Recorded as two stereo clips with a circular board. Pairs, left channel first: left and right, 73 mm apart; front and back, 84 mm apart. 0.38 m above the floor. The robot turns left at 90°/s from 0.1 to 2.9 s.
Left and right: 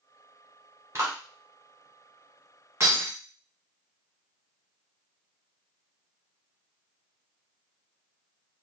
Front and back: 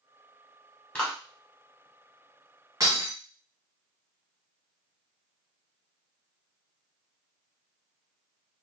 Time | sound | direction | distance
0.9 | a clap | 65° right | 1.2 m
2.8 | breaking glass | 140° right | 1.5 m